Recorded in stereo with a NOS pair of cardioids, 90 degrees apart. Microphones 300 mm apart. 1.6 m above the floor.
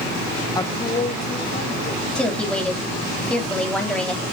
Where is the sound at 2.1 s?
5° left, 3.5 m.